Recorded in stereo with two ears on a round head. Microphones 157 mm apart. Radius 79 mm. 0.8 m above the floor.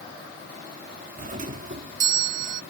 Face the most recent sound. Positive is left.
turn(degrees=-50)  # may be behind; listen again after turning